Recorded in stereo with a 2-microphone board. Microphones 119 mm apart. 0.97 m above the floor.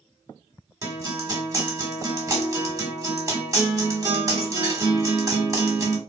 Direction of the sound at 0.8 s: 30° right (ahead or behind).